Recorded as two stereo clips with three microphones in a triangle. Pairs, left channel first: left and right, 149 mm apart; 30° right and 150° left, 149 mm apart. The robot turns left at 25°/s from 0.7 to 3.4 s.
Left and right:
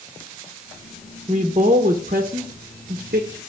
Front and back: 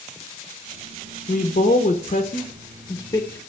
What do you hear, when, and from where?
1.3 s a woman speaking: 40° right, 0.9 m; by 3.4 s 95° right, 0.9 m